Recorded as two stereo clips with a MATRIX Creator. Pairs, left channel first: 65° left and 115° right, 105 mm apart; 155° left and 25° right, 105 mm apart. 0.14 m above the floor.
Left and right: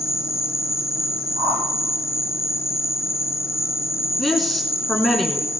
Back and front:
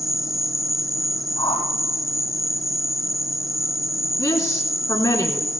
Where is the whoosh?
165° right, 4 m.